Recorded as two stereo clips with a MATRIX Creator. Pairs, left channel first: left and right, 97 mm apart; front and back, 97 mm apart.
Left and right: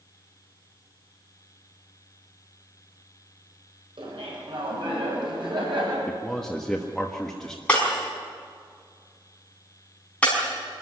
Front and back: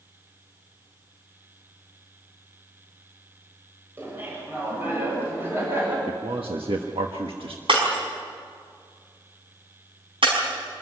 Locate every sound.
4.0 s laughter: 115° right, 7 m
6.1 s a man speaking: 175° left, 1.4 m
7.7 s breaking glass: 165° left, 5.5 m